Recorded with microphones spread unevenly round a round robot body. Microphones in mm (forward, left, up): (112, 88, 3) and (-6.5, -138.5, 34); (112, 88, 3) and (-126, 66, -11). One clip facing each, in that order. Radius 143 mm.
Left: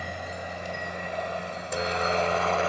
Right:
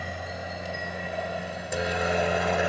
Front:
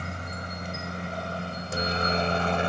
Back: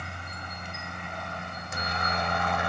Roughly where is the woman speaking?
No woman speaking in this recording.